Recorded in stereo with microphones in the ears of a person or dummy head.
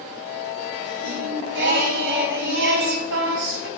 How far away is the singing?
About 3 m.